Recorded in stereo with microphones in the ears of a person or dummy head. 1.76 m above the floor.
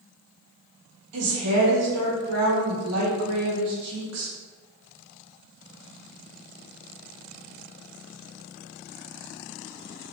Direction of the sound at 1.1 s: 90° right.